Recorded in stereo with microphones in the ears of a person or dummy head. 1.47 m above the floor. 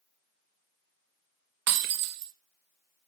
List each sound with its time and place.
1.7 s breaking glass: 60° right (ahead or behind), 1.0 m